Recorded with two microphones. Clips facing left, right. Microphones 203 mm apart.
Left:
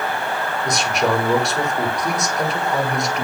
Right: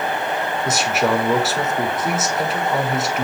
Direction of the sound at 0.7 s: 5° right (ahead or behind).